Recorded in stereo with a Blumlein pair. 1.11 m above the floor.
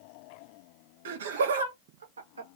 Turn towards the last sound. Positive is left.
turn(degrees=-75)